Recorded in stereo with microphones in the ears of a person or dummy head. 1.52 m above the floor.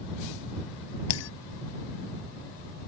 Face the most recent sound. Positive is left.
turn(degrees=80)